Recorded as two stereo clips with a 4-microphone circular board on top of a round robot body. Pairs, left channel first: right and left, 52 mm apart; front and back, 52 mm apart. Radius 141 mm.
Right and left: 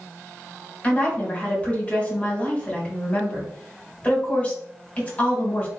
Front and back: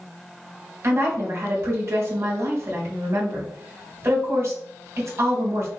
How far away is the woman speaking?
About 1.8 m.